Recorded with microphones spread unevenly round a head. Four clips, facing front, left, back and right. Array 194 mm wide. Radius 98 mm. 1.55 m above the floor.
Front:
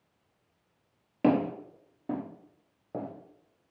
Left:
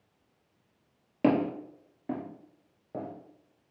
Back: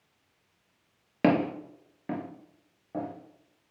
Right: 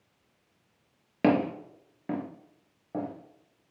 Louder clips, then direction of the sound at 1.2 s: Right 1 dB, back 1 dB; 175° right.